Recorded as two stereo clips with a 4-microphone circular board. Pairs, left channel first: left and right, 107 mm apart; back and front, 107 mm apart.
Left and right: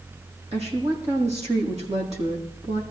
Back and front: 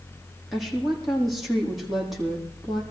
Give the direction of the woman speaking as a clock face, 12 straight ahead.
3 o'clock.